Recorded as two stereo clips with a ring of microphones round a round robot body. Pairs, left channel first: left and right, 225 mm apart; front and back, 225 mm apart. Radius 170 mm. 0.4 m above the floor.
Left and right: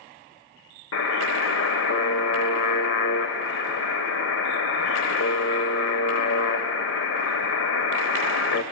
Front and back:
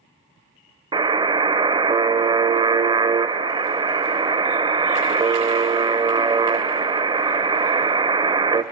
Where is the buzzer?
110° left, 0.9 m.